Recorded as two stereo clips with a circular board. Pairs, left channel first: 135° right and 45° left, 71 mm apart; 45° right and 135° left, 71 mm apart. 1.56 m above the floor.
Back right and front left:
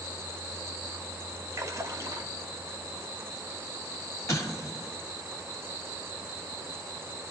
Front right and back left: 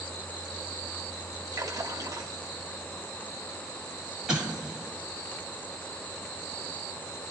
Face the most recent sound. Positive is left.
turn(degrees=-150)